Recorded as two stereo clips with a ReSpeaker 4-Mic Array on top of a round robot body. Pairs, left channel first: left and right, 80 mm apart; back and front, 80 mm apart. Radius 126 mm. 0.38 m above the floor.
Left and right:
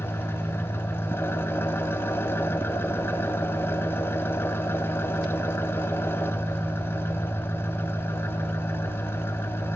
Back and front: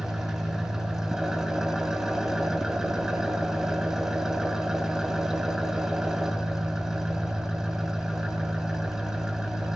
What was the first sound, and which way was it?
An engine running, 75° left.